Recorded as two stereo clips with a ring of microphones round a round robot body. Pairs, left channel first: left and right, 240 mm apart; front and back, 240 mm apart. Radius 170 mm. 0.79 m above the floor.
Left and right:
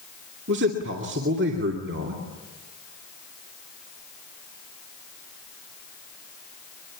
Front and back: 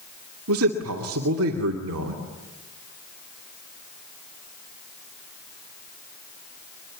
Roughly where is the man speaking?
Behind right.